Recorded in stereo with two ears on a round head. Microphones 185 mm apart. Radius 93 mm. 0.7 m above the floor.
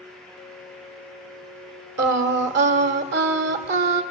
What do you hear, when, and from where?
2.0 s singing: 55° right (ahead or behind), 1.5 m